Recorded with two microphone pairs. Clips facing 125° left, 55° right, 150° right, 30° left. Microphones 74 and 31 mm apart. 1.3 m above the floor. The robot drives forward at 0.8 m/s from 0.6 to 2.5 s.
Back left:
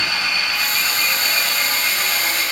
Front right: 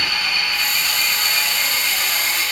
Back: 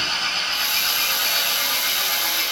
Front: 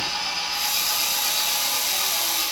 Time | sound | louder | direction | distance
0.0 | an engine running | back left 1 dB, back 4 dB | 170° right | 8.5 m